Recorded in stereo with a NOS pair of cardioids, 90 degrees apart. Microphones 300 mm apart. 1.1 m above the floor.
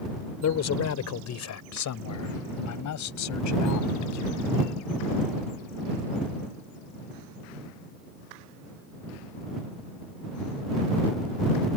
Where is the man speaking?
60° left; by 4.5 s 75° left.